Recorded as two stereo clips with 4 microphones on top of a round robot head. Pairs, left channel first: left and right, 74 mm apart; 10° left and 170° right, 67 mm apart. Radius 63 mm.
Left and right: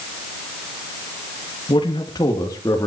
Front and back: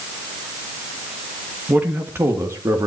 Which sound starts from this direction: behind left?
A man speaking, at 1.7 s.